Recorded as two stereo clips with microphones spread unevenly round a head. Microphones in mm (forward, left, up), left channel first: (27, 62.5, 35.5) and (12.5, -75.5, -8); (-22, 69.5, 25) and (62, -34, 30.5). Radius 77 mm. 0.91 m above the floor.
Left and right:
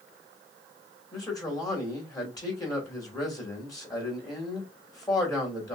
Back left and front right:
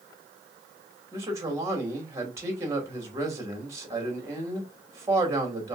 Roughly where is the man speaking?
Ahead.